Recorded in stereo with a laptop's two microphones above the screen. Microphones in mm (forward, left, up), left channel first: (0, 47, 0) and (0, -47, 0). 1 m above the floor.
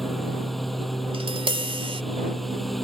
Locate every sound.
0.0 s a lawn mower: centre (ahead or behind)
1.1 s tapping: 85° right